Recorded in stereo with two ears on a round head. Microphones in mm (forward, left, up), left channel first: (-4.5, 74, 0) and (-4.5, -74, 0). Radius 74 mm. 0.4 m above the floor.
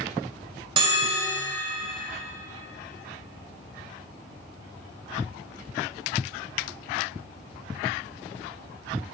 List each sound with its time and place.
0.8 s a bell: 30° right (ahead or behind), 1.9 m